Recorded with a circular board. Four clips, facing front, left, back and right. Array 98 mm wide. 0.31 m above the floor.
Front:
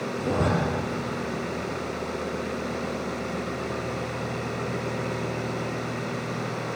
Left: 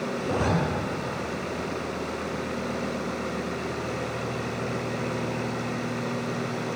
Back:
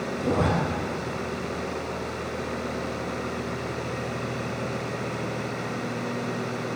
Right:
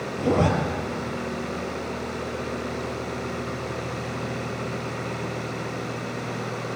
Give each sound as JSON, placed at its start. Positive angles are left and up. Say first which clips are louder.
{"t": 0.2, "sound": "a zipper", "louder": "right 7 dB, back 1 dB", "azimuth_deg": -95, "distance_m": 5.5}